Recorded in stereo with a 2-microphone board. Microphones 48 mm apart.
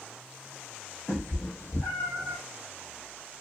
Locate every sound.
1.1 s a cat meowing: 65° left (ahead or behind), 0.8 m